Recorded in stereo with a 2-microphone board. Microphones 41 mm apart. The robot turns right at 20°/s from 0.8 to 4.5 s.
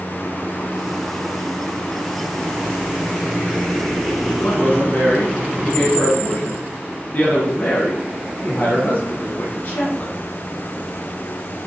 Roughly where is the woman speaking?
Left.